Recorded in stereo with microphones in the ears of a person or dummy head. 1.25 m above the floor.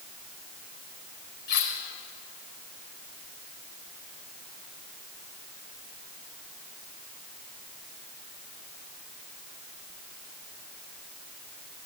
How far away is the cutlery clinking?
About 3.5 m.